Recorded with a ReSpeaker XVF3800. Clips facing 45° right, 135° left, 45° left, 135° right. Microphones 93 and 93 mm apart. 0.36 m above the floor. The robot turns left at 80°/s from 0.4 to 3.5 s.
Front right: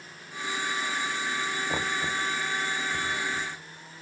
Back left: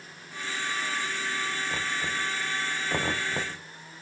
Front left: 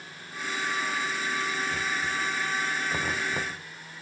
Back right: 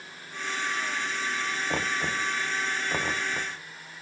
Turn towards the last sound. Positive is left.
turn(degrees=110)